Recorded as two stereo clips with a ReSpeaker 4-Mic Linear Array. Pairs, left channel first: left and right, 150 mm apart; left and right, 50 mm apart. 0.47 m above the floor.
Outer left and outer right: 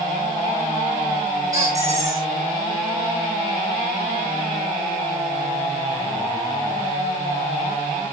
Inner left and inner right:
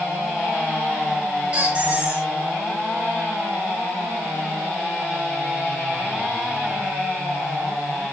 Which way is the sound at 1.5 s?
20° right (ahead or behind).